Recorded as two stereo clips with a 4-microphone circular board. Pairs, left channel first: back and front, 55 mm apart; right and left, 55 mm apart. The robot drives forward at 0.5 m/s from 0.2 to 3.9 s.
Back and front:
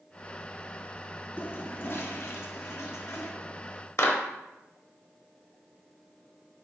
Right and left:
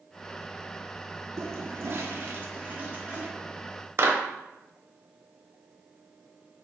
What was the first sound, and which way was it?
A toilet flushing, 125° left.